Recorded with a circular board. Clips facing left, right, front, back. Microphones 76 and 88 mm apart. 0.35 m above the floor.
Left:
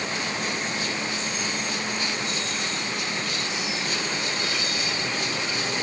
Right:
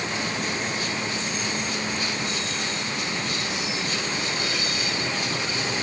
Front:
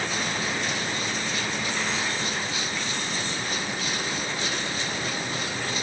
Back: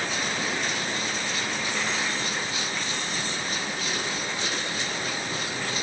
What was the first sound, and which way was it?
Only background noise.